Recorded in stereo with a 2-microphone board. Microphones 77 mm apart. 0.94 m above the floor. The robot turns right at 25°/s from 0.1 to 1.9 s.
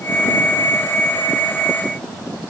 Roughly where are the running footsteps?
No running footsteps in this recording.